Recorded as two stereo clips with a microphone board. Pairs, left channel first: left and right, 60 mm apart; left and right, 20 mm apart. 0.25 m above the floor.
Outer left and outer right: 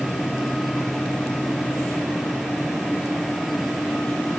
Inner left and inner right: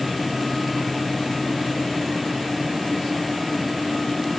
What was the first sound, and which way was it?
Only background noise.